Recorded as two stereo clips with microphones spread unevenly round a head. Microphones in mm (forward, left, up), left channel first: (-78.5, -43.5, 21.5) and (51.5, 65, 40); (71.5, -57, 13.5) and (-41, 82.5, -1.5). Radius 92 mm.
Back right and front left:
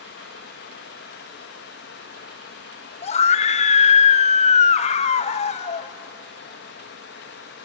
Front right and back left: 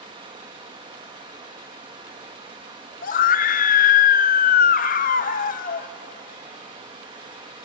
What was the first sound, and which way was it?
Running water, 165° right.